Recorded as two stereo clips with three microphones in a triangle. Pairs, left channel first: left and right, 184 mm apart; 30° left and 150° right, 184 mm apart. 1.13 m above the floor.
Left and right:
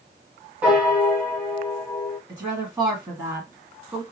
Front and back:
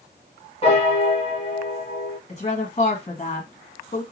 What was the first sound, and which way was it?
A piano, 10° right.